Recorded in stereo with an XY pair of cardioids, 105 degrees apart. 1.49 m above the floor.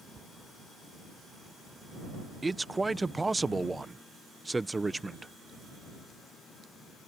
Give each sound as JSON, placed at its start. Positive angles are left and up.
{"t": 0.1, "sound": "a cupboard door", "azimuth_deg": -30}
{"t": 2.4, "sound": "a man speaking", "azimuth_deg": -20}